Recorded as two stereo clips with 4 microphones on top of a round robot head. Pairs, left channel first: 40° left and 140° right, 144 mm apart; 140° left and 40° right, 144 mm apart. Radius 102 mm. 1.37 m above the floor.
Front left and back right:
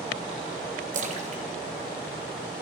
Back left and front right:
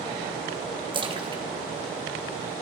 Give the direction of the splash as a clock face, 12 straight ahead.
3 o'clock.